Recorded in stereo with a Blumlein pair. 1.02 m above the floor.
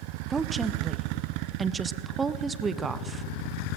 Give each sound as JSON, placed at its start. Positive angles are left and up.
{"t": 0.3, "sound": "a woman speaking", "azimuth_deg": -15, "distance_m": 0.6}